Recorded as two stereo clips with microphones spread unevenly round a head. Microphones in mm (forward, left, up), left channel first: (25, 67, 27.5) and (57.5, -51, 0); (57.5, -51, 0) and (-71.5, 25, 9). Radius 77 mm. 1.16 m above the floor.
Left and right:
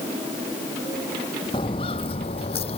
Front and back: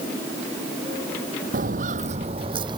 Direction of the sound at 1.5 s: 145° left.